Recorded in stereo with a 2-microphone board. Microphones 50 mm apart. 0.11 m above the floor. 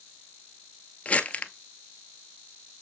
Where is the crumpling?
30° left (ahead or behind), 0.6 m.